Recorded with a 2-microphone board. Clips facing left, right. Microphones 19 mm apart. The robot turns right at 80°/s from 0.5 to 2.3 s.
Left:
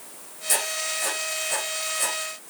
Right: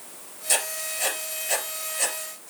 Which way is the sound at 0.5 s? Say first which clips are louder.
Left 1 dB; 15° right (ahead or behind).